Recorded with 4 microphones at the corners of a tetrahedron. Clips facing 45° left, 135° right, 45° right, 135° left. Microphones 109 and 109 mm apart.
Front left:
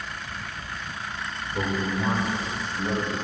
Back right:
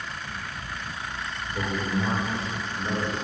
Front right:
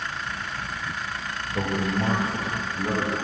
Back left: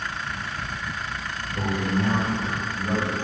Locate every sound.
1.5 s a man speaking: 25° right, 1.1 m; by 3.2 s 45° right, 2.5 m